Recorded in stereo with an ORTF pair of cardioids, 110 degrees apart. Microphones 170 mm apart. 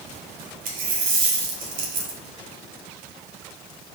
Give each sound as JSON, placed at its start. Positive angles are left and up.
{"t": 0.7, "sound": "a dropped coin", "azimuth_deg": -60, "distance_m": 2.0}